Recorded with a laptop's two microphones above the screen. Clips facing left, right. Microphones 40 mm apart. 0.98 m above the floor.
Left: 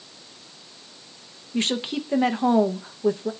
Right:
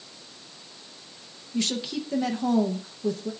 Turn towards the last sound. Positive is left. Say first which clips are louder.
# left 3 dB
turn(degrees=35)  # may be behind; listen again after turning